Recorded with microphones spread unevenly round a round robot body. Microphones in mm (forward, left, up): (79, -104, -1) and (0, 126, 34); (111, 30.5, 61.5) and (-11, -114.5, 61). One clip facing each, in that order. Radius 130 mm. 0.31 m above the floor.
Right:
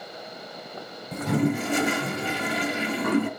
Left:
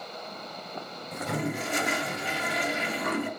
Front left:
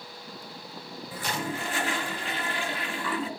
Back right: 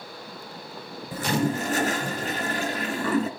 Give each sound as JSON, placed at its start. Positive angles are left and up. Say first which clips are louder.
{"t": 1.1, "sound": "a toilet flushing", "louder": "right 8 dB, back right 9 dB", "azimuth_deg": -80, "distance_m": 2.0}